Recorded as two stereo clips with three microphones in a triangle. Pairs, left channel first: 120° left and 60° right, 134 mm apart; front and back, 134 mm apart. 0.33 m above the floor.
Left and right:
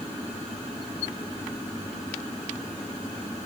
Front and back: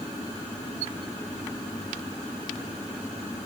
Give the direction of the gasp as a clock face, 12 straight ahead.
I don't hear a gasp.